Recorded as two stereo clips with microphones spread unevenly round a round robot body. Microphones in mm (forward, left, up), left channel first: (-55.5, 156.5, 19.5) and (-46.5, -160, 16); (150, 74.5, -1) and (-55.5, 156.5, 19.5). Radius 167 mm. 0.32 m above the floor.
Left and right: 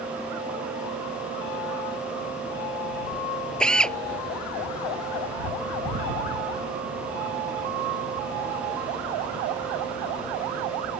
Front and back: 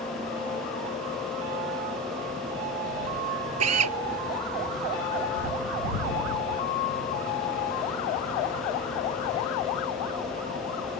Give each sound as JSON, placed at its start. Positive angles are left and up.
{"t": 3.6, "sound": "a drill", "azimuth_deg": 180}